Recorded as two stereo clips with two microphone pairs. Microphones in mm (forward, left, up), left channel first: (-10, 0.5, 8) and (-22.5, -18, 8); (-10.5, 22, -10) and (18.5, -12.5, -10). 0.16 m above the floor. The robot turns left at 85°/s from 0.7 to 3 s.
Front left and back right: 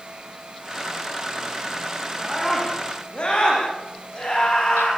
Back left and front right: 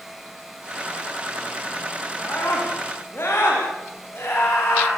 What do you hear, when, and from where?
2.2 s a scream: 165° left, 9.5 m; by 4.9 s 100° left, 9.5 m